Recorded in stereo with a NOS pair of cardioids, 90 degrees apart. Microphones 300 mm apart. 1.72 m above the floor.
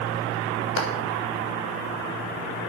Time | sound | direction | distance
0.8 | a clap | 45° left | 7 m